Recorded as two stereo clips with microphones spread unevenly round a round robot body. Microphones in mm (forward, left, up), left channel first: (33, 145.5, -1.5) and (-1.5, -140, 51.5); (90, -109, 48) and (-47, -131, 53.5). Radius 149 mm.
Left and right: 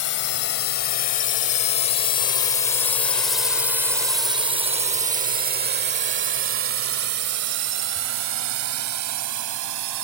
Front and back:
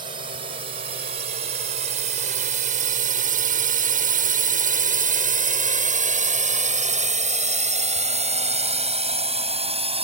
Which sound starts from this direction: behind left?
A drone, at 0.0 s.